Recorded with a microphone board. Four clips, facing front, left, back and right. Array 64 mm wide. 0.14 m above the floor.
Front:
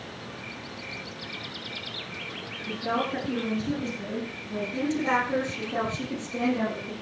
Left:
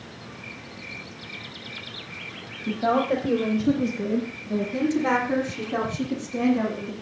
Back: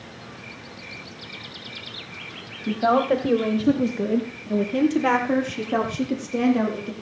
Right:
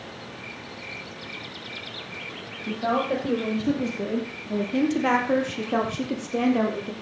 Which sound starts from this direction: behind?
A woman speaking, at 2.7 s.